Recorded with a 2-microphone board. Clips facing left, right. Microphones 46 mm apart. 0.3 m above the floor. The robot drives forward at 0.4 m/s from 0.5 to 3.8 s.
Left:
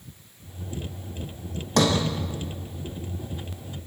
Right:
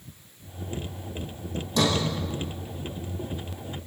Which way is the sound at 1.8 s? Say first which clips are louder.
Left 3 dB; 60° left (ahead or behind).